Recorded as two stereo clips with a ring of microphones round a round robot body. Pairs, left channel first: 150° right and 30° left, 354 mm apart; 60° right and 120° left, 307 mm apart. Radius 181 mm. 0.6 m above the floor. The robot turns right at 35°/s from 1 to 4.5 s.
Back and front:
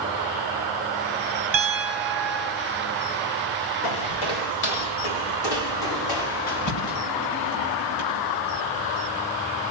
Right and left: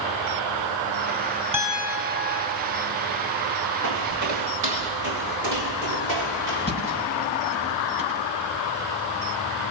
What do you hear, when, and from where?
1.5 s a piano: 50° left, 4 m; by 2.6 s 90° left, 4 m
3.8 s footsteps: 175° left, 5 m; by 7.0 s straight behind, 7 m
6.6 s a thud: 120° right, 9.5 m